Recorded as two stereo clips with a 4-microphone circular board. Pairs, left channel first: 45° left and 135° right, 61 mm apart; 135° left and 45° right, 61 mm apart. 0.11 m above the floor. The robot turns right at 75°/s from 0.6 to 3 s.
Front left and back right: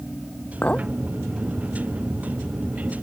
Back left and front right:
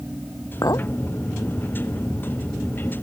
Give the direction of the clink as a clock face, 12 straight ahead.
8 o'clock.